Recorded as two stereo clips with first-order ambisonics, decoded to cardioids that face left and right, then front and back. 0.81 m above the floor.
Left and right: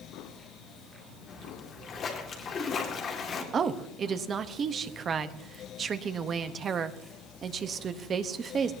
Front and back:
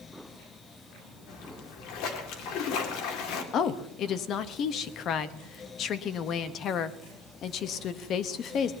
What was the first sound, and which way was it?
A splash, 30° left.